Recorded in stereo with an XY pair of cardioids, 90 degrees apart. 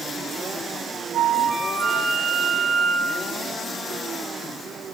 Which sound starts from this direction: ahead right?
A flute, at 1.1 s.